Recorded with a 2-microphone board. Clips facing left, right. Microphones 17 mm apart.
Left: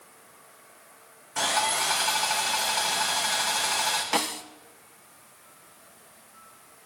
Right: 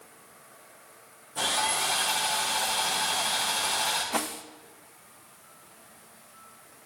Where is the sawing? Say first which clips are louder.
Left 2 dB; 60° left (ahead or behind), 4 m.